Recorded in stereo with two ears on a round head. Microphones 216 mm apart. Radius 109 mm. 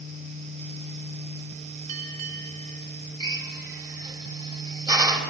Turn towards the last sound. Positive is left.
turn(degrees=-20)  # may be behind; listen again after turning